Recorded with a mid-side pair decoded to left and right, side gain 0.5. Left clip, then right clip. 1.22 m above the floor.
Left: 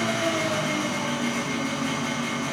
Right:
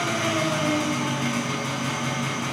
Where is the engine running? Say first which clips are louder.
Right 1 dB; 50° right, 8.5 m.